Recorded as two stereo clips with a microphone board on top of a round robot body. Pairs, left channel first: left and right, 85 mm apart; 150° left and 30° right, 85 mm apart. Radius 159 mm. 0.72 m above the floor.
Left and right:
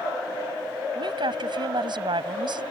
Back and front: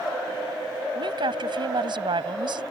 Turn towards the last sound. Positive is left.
turn(degrees=-60)